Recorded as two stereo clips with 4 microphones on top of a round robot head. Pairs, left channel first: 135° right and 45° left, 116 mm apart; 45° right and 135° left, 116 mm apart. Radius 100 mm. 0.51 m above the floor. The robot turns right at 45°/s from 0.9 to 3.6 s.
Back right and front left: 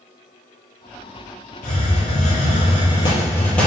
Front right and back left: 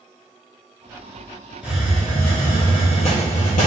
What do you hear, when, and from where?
1.6 s a hiss: 145° right, 4 m; by 3.7 s 55° right, 4 m